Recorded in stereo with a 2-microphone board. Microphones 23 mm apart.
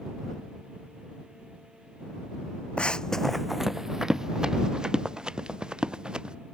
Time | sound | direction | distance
2.8 | running footsteps | 55° left (ahead or behind) | ?